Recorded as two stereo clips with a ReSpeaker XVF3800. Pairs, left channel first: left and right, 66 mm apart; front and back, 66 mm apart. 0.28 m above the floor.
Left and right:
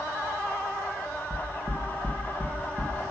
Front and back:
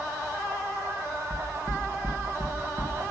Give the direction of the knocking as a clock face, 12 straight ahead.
4 o'clock.